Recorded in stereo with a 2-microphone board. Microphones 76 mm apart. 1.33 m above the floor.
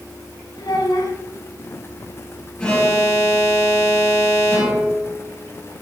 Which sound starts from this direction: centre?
An alarm, at 2.6 s.